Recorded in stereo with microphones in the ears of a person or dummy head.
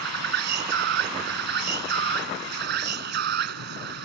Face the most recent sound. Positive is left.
turn(degrees=-60)  # may be behind; listen again after turning